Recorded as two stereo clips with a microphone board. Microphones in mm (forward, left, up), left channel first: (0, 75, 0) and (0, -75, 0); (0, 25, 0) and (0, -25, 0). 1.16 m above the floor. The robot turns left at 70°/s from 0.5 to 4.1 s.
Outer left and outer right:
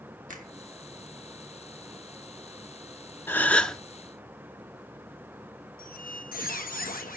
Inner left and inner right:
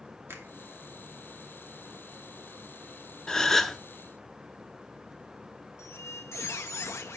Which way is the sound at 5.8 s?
70° left (ahead or behind).